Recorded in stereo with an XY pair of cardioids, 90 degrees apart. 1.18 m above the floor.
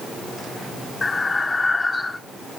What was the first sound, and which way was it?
Breathing, 30° left.